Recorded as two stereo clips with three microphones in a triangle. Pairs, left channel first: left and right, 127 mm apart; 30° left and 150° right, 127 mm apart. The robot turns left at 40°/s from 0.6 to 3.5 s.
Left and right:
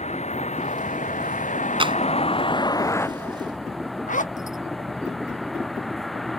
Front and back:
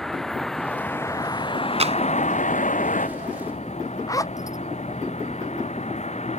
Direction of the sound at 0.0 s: 115° left.